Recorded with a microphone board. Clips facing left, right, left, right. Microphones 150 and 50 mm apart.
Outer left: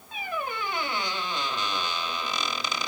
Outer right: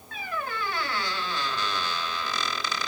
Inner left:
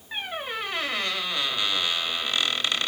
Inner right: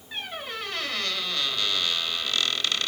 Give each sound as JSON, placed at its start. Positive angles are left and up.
{"t": 0.1, "sound": "a squeak", "side_deg": 20, "distance_m": 1.0}